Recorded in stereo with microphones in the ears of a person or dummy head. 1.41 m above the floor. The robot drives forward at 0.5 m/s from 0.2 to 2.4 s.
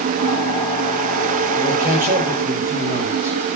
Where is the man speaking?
45° right (ahead or behind), 6 m; by 3.4 s 40° right (ahead or behind), 6.5 m.